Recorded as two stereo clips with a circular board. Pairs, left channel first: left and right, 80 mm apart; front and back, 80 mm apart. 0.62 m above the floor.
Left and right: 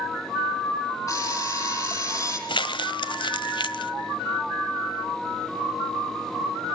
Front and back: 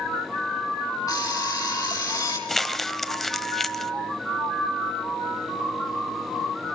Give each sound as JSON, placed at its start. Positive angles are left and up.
{"t": 1.1, "sound": "an alarm clock", "azimuth_deg": 45, "distance_m": 8.5}
{"t": 2.5, "sound": "crumpling", "azimuth_deg": 85, "distance_m": 1.1}